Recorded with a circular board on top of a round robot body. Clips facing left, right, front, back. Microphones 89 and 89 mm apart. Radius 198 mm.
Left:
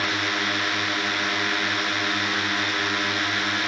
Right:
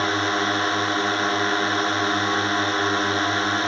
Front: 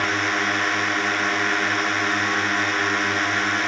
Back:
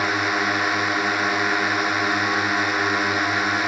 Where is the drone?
105° right.